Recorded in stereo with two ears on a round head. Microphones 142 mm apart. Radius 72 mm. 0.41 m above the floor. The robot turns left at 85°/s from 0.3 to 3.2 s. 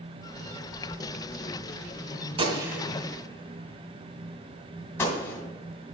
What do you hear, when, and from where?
2.4 s a gunshot: 35° right (ahead or behind), 1.5 m; by 5.4 s 15° left (ahead or behind), 1.5 m